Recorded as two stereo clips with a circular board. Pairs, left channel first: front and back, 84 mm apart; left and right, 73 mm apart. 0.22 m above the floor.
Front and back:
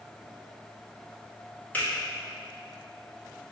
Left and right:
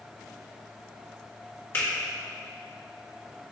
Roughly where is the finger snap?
Ahead left.